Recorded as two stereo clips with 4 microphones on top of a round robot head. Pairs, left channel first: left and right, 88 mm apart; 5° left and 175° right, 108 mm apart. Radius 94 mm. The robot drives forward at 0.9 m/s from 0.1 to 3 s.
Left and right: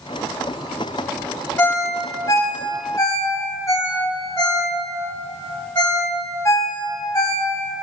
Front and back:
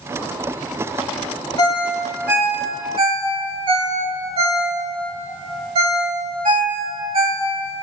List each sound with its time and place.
1.6 s a ringtone: 35° left, 0.9 m; by 7.5 s 160° left, 1.1 m